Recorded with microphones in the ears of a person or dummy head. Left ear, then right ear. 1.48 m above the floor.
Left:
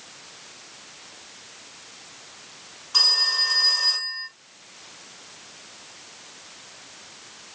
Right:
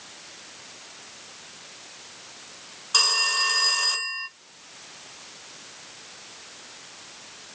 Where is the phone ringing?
25° right (ahead or behind), 0.7 m.